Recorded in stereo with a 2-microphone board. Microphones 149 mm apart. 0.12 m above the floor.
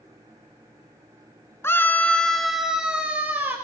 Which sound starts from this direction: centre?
A scream, at 1.6 s.